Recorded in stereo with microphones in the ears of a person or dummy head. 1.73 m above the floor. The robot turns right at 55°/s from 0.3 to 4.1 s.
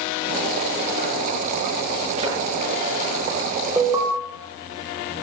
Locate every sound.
2.2 s a thud: 35° right (ahead or behind), 8.5 m; by 2.4 s 25° right (ahead or behind), 8.5 m
3.8 s an alarm: 5° right (ahead or behind), 1.7 m; by 4.1 s 25° right (ahead or behind), 1.7 m